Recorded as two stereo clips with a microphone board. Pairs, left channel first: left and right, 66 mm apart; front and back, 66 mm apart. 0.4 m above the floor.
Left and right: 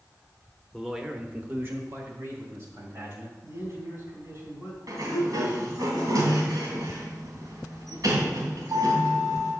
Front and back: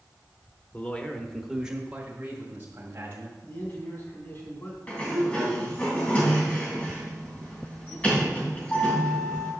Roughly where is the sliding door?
Ahead right.